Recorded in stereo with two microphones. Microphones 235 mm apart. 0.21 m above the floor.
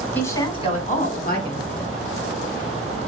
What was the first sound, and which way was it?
A woman speaking, 5° left (ahead or behind).